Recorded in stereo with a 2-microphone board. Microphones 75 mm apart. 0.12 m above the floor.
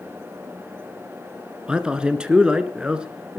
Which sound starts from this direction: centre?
A man speaking, at 1.7 s.